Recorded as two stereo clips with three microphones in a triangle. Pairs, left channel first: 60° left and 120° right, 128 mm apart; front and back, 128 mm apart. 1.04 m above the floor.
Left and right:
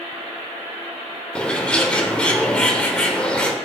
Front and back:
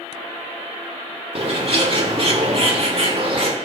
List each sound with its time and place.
1.4 s a bird: 140° left, 1.4 m